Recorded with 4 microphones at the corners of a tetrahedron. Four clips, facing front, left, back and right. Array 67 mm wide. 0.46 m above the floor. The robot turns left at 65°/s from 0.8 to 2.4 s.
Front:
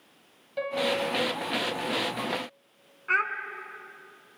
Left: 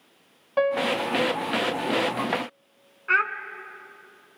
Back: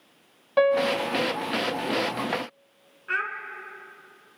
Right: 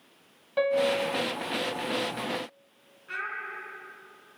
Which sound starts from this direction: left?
A child speaking, at 3.1 s.